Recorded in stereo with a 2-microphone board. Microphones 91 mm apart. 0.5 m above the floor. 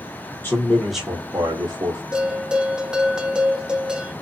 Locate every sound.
0.4 s a man speaking: 25° left (ahead or behind), 1.1 m; by 2.0 s 50° right (ahead or behind), 1.4 m
2.1 s a bell: 10° right (ahead or behind), 0.6 m